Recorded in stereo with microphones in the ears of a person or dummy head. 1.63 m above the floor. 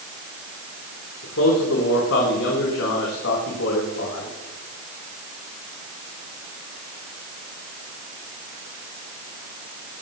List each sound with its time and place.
1.2 s a man speaking: 80° left, 4 m